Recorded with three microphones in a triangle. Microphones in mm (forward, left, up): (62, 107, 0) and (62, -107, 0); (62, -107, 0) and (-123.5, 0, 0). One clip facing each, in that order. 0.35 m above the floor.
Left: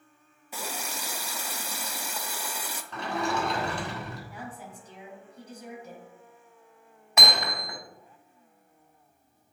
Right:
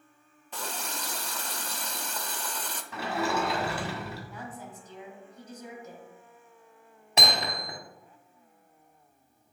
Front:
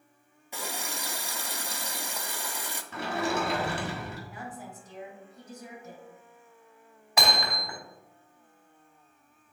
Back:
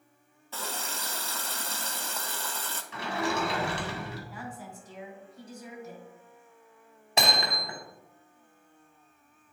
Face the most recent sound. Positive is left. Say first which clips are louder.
# even, even
turn(degrees=-145)